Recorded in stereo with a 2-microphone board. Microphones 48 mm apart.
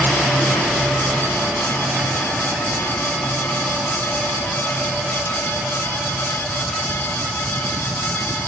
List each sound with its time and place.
Only background noise.